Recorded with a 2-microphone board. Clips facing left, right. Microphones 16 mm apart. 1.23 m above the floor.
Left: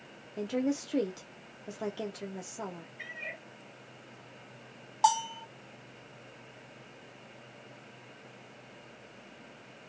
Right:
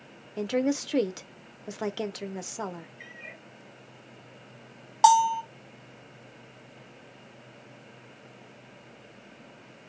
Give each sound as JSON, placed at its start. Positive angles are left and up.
{"t": 0.4, "sound": "a woman speaking", "side_deg": -40, "distance_m": 0.6}
{"t": 3.0, "sound": "a cat meowing", "side_deg": 55, "distance_m": 1.6}
{"t": 5.0, "sound": "a bell", "side_deg": -35, "distance_m": 0.6}